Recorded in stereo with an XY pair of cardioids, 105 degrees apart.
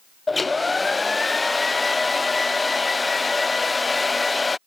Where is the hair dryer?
20° left.